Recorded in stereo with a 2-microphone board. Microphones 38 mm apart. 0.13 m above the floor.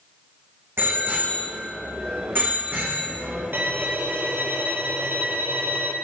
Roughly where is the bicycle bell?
Right.